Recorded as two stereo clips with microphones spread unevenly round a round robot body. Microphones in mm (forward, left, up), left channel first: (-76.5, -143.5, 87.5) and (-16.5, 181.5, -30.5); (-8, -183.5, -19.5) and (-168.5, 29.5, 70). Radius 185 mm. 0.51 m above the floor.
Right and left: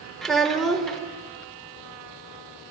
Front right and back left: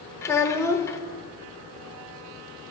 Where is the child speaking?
5° left, 0.9 m.